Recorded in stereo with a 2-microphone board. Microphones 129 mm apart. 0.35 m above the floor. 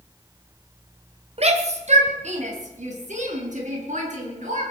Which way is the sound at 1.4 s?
55° right (ahead or behind).